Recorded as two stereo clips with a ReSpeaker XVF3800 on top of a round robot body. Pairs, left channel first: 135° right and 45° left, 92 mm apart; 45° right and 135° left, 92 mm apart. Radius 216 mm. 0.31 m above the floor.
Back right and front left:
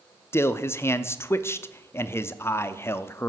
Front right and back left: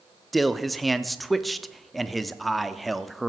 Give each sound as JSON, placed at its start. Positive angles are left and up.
{"t": 0.3, "sound": "a man speaking", "azimuth_deg": -135, "distance_m": 0.9}